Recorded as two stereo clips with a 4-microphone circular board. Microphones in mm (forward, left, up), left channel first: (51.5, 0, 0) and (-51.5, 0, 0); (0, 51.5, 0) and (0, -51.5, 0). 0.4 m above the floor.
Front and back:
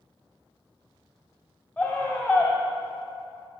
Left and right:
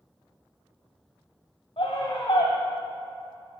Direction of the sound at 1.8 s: 80° left.